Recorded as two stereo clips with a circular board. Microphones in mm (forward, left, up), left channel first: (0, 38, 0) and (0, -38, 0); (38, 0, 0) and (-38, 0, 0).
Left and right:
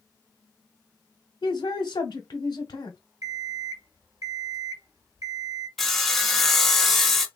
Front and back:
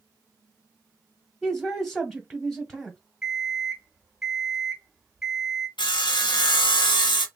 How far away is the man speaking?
About 0.8 m.